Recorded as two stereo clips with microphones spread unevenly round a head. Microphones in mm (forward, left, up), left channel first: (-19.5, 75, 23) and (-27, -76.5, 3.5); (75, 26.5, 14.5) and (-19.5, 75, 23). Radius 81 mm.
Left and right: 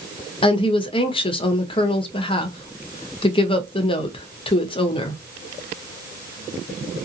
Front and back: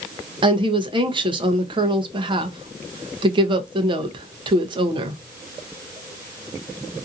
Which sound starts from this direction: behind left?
A woman speaking, at 0.4 s.